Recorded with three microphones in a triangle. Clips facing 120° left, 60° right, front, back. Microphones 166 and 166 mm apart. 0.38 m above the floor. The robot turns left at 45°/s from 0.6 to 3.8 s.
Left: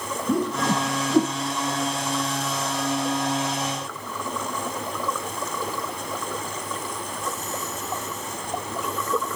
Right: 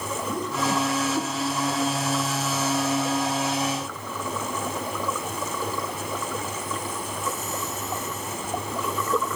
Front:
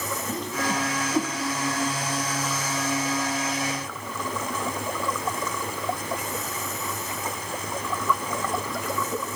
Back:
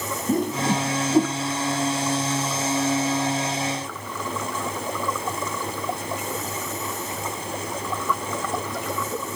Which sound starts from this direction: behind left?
A whoosh, at 0.3 s.